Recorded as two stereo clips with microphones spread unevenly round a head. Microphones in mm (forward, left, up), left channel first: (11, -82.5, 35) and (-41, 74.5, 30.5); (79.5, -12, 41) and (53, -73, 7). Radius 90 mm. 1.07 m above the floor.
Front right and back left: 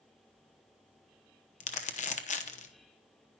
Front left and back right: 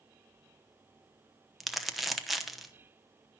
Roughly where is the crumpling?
Ahead right.